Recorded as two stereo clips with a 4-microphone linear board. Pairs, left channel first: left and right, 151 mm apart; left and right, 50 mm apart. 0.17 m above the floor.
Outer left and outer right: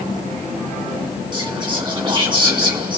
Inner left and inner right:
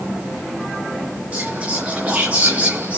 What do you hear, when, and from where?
1.3 s whispering: 30° right (ahead or behind), 1.9 m